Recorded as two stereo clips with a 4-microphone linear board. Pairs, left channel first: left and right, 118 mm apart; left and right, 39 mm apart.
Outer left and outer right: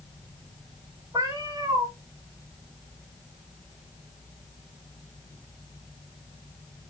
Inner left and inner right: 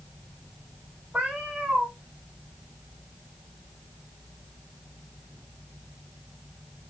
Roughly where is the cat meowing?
Right.